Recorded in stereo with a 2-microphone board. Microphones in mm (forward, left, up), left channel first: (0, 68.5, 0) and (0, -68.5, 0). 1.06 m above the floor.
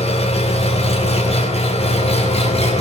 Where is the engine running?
50° left (ahead or behind), 3 m.